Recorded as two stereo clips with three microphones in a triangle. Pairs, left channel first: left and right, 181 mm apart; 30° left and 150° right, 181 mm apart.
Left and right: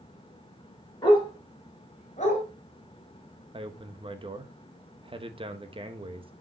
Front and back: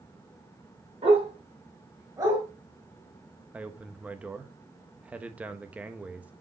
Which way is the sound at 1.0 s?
155° left.